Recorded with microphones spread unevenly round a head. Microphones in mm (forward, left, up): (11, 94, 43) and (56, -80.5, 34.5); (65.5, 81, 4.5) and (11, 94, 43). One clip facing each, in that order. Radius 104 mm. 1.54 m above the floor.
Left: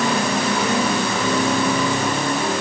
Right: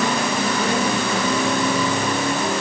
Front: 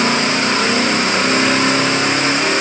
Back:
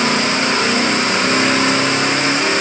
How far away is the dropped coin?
I don't hear a dropped coin.